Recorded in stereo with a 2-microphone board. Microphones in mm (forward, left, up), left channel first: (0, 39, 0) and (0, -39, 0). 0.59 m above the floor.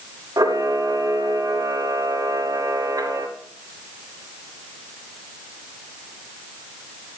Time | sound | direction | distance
0.4 | a camera shutter | 50° right (ahead or behind) | 1.8 m